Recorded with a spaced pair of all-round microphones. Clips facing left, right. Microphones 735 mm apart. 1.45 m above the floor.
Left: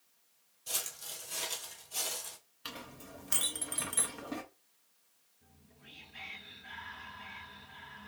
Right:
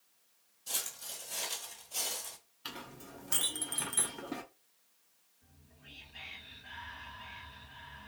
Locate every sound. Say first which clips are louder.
0.7 s footsteps: left 1 dB; 15° left (ahead or behind), 1.5 m; by 2.4 s 15° right (ahead or behind), 1.5 m
2.6 s a clink: even; 10° left (ahead or behind), 0.6 m
5.4 s whispering: left 1 dB; 35° left (ahead or behind), 1.3 m